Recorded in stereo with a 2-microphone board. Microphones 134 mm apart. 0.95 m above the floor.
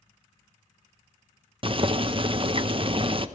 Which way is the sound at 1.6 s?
40° right (ahead or behind).